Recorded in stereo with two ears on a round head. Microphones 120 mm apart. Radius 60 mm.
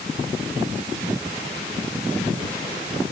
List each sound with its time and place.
Only background noise.